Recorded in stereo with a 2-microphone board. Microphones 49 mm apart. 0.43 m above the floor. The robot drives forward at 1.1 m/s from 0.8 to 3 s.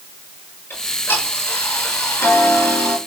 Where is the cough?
I don't hear a cough.